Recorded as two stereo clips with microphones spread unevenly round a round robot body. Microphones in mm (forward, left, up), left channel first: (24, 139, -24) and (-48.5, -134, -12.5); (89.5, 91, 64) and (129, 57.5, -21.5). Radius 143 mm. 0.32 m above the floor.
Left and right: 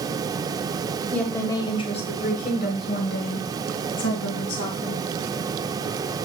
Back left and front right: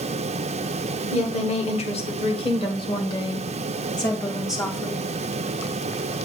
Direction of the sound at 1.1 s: 155° left.